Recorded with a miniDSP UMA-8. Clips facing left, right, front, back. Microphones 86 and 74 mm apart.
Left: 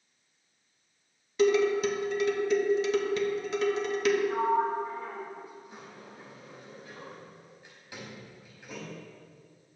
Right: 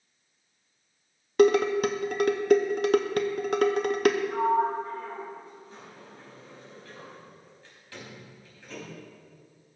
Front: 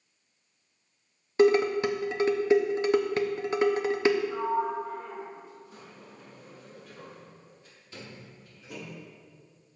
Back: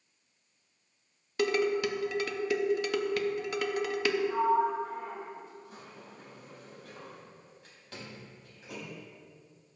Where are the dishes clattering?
60° right, 0.6 m.